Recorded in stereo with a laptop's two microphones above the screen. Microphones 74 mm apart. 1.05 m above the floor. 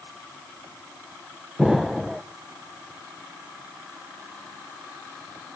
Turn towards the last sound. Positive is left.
turn(degrees=-5)  # may be behind; listen again after turning